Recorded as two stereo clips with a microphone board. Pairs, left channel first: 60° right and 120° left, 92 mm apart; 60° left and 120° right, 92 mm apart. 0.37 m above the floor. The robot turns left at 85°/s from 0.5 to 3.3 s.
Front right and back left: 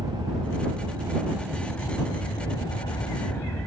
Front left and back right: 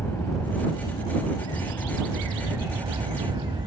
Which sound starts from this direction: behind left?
An aircraft, at 0.0 s.